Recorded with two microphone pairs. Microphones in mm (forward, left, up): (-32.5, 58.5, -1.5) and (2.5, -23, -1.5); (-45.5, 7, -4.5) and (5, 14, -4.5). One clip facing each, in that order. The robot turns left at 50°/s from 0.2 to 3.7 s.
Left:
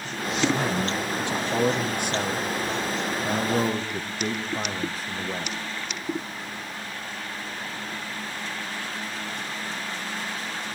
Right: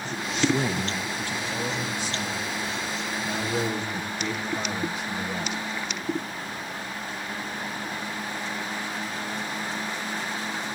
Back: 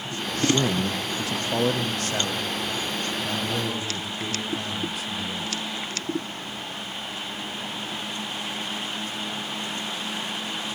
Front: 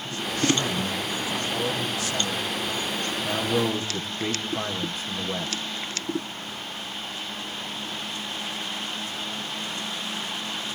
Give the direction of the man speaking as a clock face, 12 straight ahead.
4 o'clock.